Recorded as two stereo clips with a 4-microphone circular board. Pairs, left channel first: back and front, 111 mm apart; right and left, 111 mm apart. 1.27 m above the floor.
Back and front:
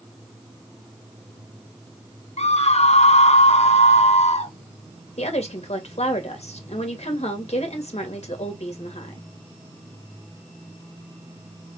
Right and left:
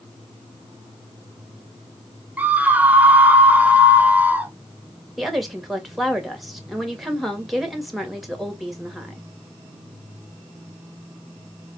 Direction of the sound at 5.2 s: Straight behind.